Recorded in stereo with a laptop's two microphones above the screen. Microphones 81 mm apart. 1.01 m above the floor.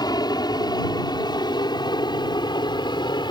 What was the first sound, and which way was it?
An aircraft, 55° left (ahead or behind).